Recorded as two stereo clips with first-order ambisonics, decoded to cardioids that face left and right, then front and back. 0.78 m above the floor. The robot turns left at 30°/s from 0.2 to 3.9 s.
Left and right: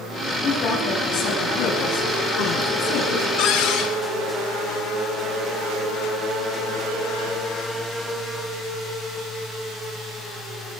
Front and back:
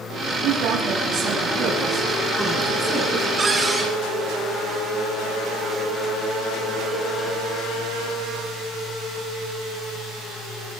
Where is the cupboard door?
105° left, 3 m; by 3.9 s 90° left, 3 m.